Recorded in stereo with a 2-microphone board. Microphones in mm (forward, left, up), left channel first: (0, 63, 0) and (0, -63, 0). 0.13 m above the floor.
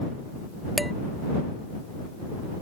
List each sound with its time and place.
0.8 s dishes clattering: centre (ahead or behind)